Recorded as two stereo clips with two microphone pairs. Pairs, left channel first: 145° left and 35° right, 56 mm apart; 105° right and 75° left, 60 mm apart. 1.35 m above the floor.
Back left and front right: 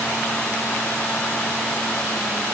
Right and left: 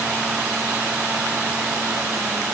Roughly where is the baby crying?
No baby crying in this recording.